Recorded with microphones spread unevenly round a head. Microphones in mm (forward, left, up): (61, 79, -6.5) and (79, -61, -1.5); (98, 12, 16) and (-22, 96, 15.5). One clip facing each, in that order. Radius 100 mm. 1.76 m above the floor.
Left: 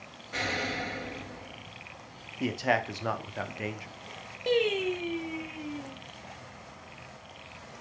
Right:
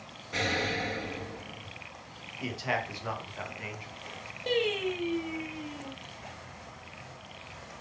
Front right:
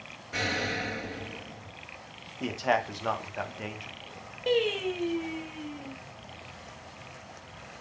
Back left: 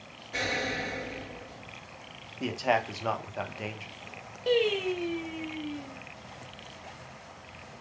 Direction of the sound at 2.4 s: 60° left.